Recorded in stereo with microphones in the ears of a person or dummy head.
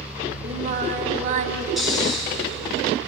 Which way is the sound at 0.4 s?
45° right (ahead or behind).